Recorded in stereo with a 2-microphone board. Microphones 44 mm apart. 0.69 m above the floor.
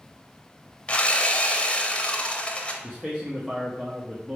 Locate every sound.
0.9 s sawing: 25° left (ahead or behind), 0.7 m
2.8 s a man speaking: 15° right (ahead or behind), 0.8 m